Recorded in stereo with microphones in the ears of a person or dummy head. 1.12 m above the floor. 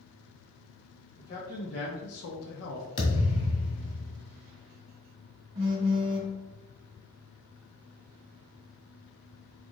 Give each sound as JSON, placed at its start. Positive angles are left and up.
{"t": 1.2, "sound": "a man speaking", "side_deg": 35, "distance_m": 0.9}
{"t": 3.0, "sound": "a thud", "side_deg": 35, "distance_m": 1.5}
{"t": 5.5, "sound": "a phone buzzing", "side_deg": -35, "distance_m": 1.3}